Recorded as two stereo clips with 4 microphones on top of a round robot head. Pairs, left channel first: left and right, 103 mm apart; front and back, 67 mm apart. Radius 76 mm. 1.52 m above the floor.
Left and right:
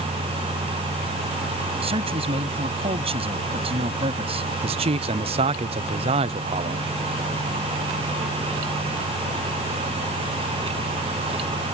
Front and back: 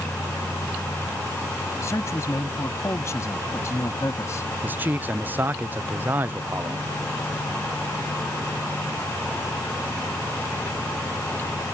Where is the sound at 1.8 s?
60° right.